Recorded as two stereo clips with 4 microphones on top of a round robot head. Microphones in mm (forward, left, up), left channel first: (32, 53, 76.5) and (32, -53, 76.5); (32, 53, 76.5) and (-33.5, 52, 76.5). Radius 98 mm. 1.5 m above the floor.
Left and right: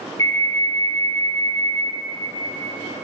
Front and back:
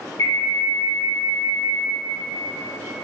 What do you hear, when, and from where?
0.2 s an alarm: 35° left, 3 m